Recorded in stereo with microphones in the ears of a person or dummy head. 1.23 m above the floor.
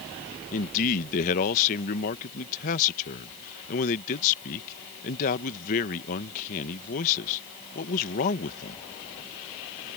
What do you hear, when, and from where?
0.5 s a man speaking: 45° left (ahead or behind)